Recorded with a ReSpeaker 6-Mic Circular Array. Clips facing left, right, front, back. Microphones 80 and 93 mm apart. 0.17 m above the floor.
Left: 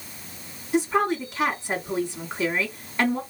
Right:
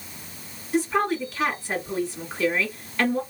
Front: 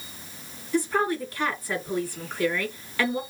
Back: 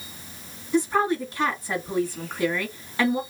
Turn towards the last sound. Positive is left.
turn(degrees=140)